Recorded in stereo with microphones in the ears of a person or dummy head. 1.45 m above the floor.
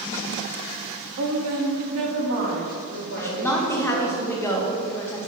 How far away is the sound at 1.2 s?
About 0.6 m.